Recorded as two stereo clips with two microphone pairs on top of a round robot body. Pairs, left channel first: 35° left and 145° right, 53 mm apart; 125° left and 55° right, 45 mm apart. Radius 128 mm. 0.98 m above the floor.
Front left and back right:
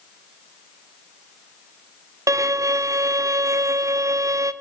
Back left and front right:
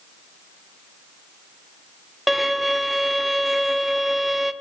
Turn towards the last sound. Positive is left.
turn(degrees=-145)